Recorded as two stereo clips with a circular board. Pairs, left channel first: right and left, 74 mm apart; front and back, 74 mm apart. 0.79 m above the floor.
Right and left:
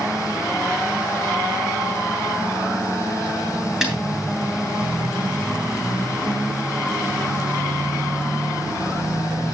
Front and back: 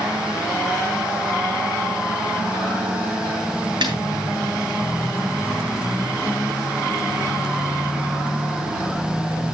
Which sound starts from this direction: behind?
A snare drum, at 3.8 s.